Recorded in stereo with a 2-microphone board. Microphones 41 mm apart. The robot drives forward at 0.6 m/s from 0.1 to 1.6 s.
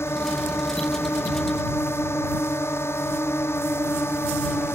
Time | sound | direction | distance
0.0 | a drone | 85° left | ?